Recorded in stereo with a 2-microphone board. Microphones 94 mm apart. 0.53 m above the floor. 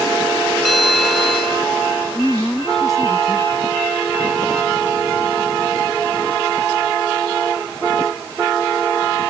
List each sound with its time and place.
0.7 s a bell: centre (ahead or behind)
2.1 s a woman speaking: 5° left (ahead or behind)